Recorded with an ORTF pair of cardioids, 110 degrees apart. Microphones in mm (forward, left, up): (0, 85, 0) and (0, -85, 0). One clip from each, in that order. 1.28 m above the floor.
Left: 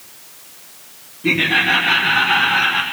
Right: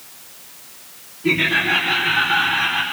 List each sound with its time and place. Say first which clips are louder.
1.2 s laughter: left 2 dB; 35° left, 1.9 m; by 2.8 s 80° left, 2.5 m